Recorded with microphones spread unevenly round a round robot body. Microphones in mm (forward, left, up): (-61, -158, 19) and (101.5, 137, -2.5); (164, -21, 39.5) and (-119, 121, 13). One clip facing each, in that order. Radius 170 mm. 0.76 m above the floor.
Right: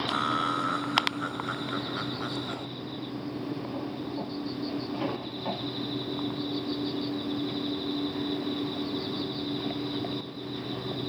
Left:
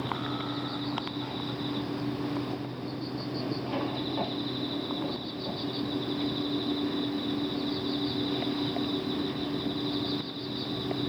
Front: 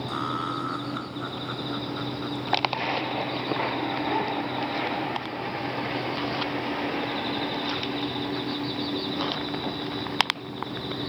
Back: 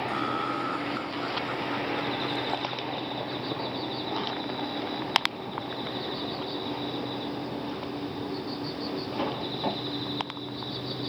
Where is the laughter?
110° right; by 2.7 s 120° right.